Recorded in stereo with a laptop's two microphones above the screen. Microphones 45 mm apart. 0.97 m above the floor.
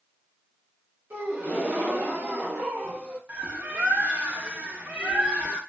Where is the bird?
35° right (ahead or behind), 0.5 m.